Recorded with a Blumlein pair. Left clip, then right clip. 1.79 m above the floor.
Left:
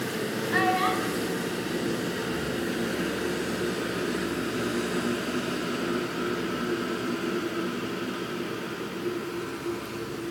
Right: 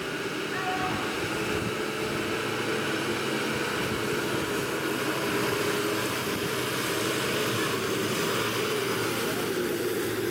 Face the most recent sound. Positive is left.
turn(degrees=25)